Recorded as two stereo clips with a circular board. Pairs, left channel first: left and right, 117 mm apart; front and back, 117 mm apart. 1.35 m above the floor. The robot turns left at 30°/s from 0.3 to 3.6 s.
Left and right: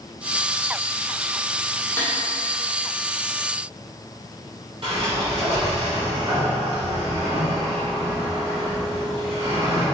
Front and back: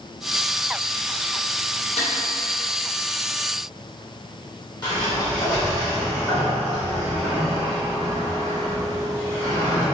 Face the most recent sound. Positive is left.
turn(degrees=-50)